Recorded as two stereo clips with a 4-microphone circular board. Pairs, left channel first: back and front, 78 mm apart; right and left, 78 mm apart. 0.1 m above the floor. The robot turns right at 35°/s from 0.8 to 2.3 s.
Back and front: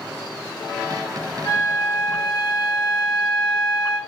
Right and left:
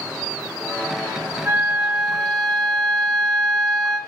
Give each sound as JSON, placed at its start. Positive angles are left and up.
{"t": 1.4, "sound": "a flute", "azimuth_deg": 155, "distance_m": 3.5}